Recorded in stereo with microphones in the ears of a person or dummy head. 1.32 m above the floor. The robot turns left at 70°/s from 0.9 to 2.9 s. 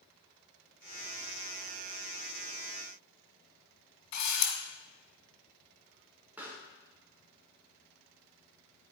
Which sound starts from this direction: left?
A camera shutter, at 4.1 s.